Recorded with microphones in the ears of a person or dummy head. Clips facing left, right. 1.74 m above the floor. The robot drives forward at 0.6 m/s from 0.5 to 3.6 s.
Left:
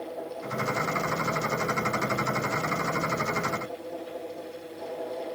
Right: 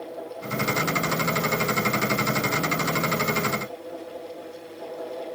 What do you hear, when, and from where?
Only background noise.